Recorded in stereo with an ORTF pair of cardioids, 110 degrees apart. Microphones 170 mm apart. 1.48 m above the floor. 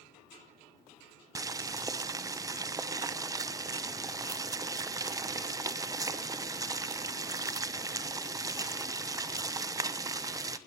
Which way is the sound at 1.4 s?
20° right.